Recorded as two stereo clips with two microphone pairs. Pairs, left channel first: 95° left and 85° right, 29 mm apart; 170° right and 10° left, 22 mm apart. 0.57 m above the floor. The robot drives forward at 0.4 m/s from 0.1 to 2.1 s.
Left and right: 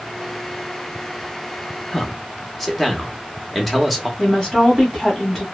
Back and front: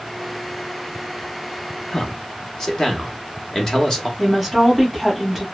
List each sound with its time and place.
1.9 s a man speaking: 170° left, 0.7 m
4.2 s a woman speaking: 130° left, 1.3 m